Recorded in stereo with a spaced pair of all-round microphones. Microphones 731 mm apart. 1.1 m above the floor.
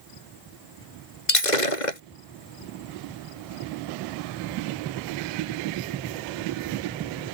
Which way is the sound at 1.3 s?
75° left (ahead or behind).